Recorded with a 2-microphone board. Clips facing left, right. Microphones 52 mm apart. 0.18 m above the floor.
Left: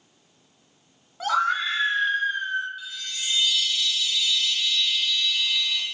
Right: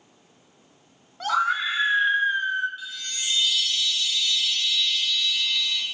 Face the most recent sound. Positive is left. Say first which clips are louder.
# even
turn(degrees=0)  # may be behind; listen again after turning